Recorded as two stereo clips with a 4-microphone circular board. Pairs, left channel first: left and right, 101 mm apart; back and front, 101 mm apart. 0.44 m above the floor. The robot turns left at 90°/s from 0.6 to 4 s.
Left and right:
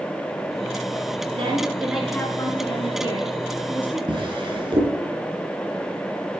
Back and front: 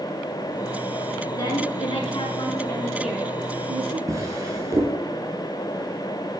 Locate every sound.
1.3 s a woman speaking: 120° right, 5.5 m; by 4.0 s 5° left, 5.5 m
4.1 s a drawer: 55° right, 4 m